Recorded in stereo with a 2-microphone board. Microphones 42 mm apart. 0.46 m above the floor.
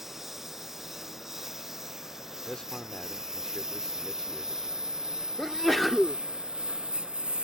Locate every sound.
0.0 s a lawn mower: 5° right (ahead or behind); by 7.4 s 20° right (ahead or behind)
2.5 s a man speaking: 20° left (ahead or behind)
5.4 s a sneeze: centre (ahead or behind)